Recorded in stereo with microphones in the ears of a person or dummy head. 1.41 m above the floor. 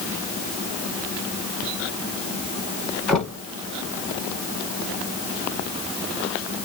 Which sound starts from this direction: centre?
Knocking, at 3.1 s.